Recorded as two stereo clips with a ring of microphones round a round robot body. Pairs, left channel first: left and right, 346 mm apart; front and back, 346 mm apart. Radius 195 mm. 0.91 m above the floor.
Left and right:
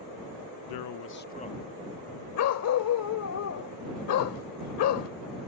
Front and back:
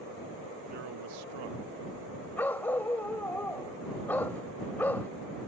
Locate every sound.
0.7 s a man speaking: 105° left; by 2.3 s 175° left
2.4 s a dog barking: 80° left